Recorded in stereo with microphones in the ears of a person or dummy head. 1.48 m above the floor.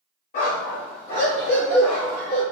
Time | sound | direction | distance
0.3 | a dog barking | 25° left (ahead or behind) | 1.4 m